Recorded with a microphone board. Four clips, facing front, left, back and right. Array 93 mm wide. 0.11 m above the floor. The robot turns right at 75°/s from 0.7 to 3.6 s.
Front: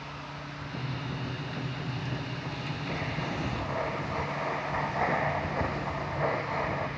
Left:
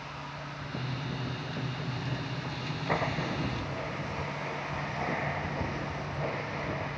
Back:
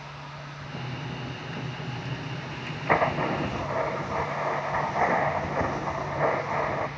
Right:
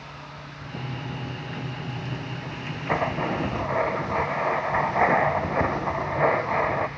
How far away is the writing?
About 1.0 m.